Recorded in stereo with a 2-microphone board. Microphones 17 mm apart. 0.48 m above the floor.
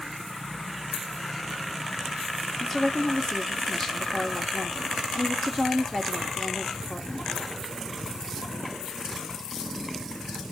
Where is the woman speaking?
25° left (ahead or behind), 1.0 m.